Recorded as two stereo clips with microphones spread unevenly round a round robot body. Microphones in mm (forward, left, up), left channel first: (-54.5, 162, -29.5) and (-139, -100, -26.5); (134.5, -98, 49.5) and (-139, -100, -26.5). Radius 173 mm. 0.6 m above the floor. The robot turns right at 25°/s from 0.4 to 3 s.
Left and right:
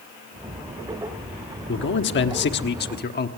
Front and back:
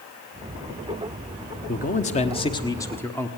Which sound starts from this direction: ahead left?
A man speaking, at 1.7 s.